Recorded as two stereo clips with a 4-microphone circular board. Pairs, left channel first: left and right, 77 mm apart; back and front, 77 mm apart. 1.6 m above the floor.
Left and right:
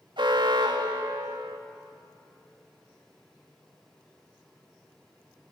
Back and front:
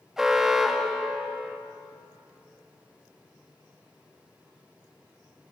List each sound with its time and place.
0.2 s an alarm: 85° right, 3 m